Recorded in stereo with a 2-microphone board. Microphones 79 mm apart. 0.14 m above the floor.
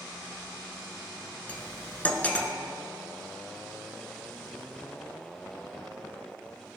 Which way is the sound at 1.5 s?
20° left (ahead or behind).